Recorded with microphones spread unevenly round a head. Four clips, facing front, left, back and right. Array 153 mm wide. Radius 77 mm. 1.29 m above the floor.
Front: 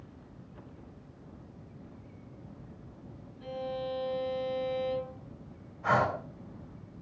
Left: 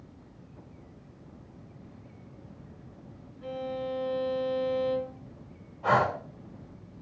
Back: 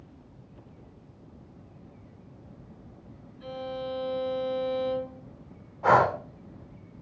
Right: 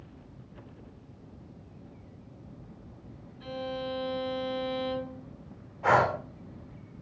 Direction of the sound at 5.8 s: 165° right.